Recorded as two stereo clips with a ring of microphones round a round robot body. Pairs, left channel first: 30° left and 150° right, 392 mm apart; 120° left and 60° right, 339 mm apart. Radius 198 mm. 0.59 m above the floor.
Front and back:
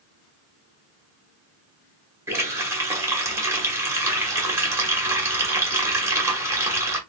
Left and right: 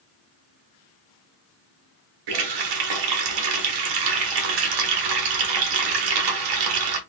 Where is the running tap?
65° right, 1.0 m.